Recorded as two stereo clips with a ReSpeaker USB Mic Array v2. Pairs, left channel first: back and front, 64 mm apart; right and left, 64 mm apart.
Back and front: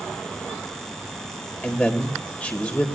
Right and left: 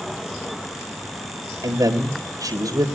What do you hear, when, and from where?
1.6 s a man speaking: 110° left, 3.5 m